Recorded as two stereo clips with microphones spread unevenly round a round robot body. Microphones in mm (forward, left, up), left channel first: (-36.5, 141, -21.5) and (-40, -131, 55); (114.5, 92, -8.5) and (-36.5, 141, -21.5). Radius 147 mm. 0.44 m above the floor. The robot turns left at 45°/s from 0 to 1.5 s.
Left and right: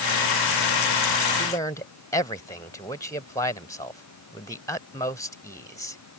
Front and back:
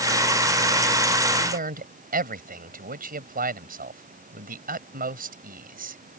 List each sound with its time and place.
1.4 s a man speaking: 165° left; by 6.0 s 160° left